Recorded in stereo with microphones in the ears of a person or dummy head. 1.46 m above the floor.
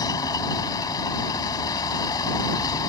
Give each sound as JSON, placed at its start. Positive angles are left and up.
{"t": 0.0, "sound": "a vehicle", "side_deg": 20}